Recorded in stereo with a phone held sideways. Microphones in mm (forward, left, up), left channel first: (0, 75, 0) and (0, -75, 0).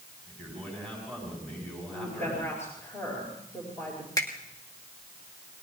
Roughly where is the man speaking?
Centre.